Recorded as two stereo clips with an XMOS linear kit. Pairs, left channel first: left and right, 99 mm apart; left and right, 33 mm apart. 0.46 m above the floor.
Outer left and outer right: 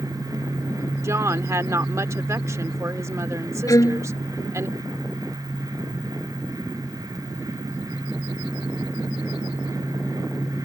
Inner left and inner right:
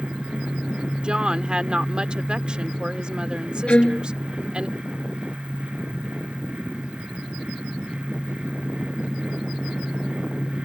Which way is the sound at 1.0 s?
30° right (ahead or behind).